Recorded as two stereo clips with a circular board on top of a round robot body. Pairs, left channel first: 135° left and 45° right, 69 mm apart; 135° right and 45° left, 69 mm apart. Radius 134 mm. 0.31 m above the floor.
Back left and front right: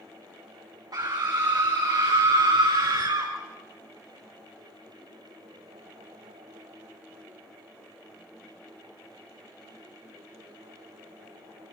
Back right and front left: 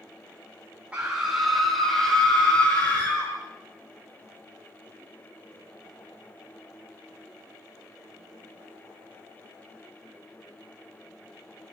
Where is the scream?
25° right, 3 m; by 3.3 s 70° right, 5 m.